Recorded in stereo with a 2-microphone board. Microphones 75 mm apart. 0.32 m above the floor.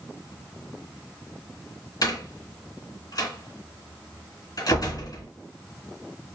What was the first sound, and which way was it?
A door slam, 60° left (ahead or behind).